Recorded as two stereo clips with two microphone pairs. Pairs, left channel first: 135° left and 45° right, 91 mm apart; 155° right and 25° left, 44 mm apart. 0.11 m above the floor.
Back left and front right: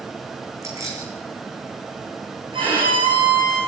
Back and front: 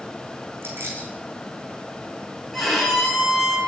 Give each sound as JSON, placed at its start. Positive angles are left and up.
{"t": 0.6, "sound": "keys jangling", "azimuth_deg": 10, "distance_m": 5.0}
{"t": 2.5, "sound": "a violin", "azimuth_deg": -70, "distance_m": 8.0}